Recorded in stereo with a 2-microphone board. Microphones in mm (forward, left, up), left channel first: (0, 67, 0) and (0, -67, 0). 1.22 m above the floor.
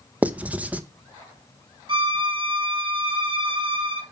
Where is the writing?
10° right (ahead or behind), 0.7 m.